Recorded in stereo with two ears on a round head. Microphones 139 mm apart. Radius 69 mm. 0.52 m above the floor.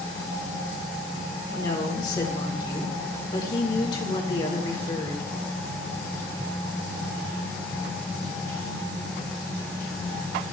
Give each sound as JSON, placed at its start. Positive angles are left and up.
{"t": 1.6, "sound": "a woman speaking", "side_deg": 25, "distance_m": 1.8}